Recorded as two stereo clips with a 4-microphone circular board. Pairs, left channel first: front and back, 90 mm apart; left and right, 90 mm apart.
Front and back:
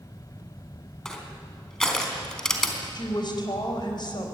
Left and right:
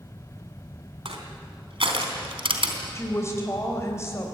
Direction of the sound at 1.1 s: 85° right.